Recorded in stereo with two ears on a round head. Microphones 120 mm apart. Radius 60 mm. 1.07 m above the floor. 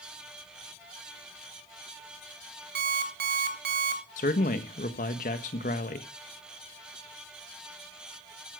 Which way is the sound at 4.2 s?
65° left (ahead or behind).